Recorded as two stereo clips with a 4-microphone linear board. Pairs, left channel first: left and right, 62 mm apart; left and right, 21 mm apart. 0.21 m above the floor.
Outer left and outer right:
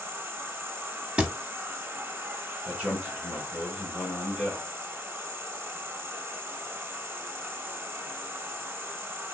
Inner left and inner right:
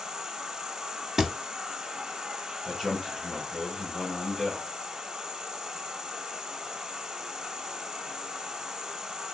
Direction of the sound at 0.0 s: 35° right (ahead or behind).